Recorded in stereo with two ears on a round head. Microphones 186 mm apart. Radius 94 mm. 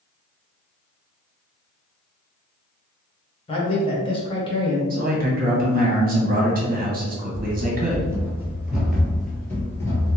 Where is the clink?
I don't hear a clink.